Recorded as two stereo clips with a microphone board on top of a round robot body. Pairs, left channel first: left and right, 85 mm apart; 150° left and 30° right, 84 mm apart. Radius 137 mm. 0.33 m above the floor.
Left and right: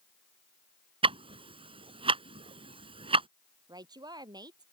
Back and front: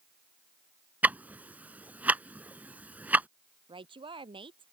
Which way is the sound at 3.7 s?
50° right.